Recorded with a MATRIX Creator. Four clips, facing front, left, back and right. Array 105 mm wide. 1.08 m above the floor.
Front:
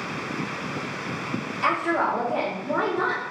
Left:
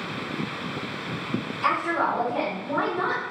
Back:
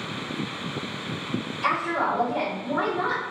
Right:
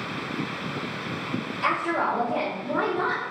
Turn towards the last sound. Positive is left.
turn(degrees=-20)